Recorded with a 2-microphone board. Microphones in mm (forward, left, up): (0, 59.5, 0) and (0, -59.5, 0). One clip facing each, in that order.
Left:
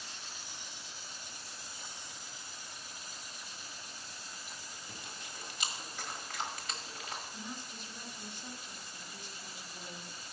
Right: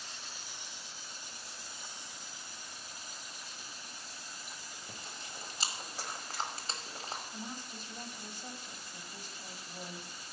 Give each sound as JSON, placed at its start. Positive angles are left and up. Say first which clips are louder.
{"t": 4.9, "sound": "chewing", "louder": "right 1 dB", "side_deg": -35, "distance_m": 1.4}
{"t": 7.3, "sound": "a woman speaking", "louder": "right 1 dB", "side_deg": -40, "distance_m": 1.4}